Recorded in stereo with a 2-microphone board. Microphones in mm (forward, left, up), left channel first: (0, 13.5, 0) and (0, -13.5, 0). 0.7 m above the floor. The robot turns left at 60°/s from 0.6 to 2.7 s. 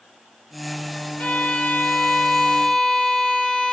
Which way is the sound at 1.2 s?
110° left.